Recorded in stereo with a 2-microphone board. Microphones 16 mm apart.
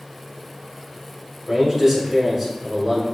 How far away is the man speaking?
About 1.2 m.